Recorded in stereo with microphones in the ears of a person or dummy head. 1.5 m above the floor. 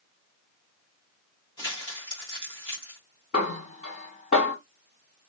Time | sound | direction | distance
1.6 | crumpling | 20° left (ahead or behind) | 1.1 m
3.3 | a snare drum | 40° left (ahead or behind) | 2.5 m